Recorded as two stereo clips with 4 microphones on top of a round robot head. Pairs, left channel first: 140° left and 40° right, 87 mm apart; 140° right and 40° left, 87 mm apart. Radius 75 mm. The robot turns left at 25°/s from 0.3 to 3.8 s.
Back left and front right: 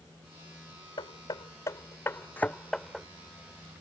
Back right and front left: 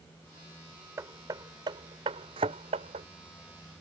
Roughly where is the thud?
Left.